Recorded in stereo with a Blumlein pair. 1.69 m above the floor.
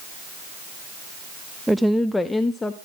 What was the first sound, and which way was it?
A woman speaking, straight ahead.